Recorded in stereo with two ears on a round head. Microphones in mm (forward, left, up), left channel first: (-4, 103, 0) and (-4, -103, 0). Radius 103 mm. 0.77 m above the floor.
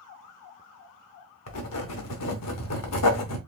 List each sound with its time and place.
1.5 s writing: 75° left (ahead or behind), 0.9 m